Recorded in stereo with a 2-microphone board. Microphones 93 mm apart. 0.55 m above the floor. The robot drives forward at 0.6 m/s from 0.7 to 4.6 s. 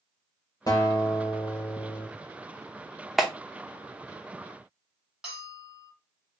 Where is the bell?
5° right (ahead or behind), 2.5 m.